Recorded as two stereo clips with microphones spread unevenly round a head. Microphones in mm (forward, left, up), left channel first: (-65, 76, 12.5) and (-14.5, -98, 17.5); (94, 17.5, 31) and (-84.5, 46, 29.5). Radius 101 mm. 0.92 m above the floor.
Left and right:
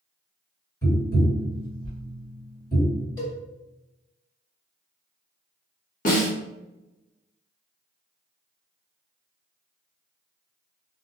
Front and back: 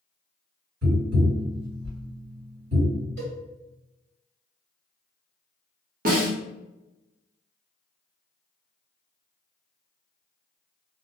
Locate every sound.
0.8 s tapping: 175° left, 1.6 m
3.2 s a cowbell: 170° left, 1.7 m
6.0 s a snare drum: 140° left, 0.8 m